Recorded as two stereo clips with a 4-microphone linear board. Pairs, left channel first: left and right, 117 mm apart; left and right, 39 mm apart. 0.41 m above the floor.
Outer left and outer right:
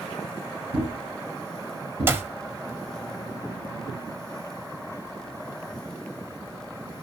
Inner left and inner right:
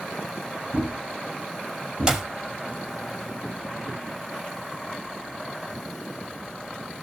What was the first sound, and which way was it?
A thud, 55° right (ahead or behind).